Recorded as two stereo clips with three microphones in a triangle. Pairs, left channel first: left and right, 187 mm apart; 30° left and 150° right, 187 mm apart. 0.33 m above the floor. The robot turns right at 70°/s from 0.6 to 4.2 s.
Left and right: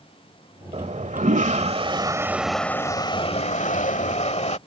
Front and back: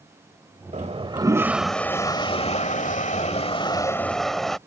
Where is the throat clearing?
I don't hear throat clearing.